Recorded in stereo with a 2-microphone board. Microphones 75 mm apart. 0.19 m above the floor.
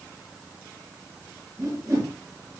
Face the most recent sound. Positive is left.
turn(degrees=-45)  # may be behind; listen again after turning